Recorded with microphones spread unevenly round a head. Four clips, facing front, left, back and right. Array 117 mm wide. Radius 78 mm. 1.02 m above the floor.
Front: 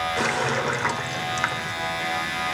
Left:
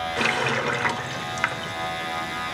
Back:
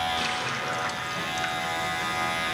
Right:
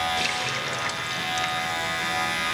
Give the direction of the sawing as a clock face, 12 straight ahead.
No sawing in this recording.